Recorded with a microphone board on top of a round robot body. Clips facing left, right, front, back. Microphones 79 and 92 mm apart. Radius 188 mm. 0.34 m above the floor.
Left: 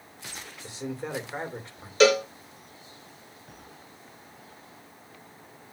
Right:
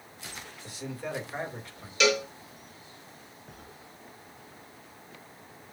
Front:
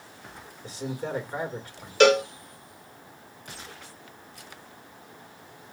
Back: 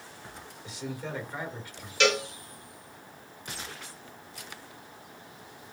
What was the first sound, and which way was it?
A man speaking, 30° left.